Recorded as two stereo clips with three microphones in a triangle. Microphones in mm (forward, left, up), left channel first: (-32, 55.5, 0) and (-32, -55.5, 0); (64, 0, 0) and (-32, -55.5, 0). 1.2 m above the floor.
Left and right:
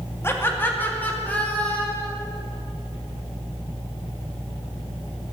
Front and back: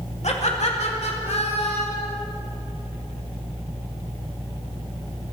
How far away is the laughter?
About 2.5 m.